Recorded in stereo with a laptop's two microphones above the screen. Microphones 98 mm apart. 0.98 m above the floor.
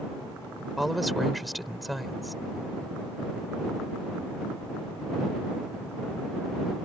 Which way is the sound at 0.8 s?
Centre (ahead or behind).